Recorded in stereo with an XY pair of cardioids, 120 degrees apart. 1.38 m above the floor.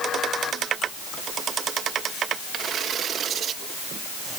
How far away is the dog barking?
I don't hear a dog barking.